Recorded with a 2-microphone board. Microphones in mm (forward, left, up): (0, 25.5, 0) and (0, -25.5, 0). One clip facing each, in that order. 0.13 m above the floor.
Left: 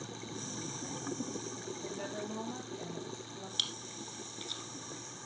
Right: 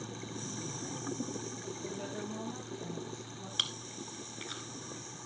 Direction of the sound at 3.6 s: 35° right (ahead or behind).